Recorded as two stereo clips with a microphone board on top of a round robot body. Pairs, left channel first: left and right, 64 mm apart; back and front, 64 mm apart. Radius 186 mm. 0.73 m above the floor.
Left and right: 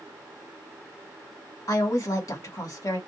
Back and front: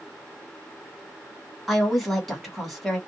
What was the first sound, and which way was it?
A woman speaking, 90° left.